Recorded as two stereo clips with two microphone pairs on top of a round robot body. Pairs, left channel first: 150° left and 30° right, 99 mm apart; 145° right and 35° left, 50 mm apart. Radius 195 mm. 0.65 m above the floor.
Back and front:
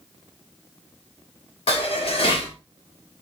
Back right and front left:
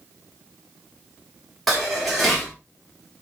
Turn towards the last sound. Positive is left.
turn(degrees=125)